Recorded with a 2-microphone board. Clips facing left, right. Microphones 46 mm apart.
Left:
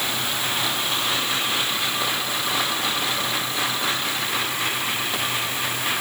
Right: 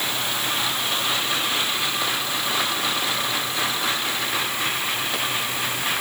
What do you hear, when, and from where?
Only background noise.